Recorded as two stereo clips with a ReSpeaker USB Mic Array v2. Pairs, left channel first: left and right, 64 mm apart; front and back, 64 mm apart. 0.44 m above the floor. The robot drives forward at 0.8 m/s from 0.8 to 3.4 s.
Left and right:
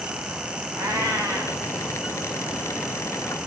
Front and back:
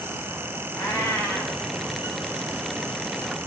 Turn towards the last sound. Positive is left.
turn(degrees=-60)